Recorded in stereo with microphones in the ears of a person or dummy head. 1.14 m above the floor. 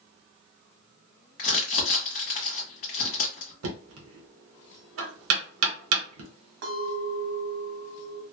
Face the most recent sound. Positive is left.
turn(degrees=-70)  # may be behind; listen again after turning